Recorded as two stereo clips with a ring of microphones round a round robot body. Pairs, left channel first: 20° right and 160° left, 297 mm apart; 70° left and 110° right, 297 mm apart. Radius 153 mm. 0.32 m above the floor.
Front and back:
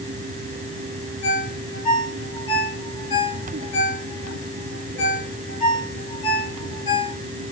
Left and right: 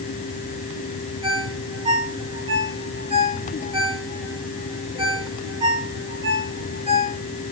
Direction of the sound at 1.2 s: 40° right.